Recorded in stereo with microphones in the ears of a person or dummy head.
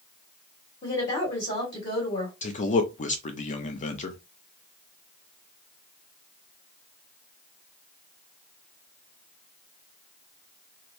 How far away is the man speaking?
About 0.8 m.